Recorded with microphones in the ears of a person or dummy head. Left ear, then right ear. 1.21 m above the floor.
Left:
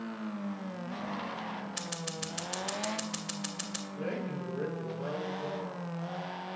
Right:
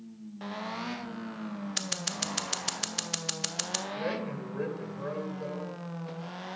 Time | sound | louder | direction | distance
1.8 | scissors | right 5 dB | 35° right (ahead or behind) | 0.5 m
4.0 | a man speaking | right 3 dB | 65° right (ahead or behind) | 2.5 m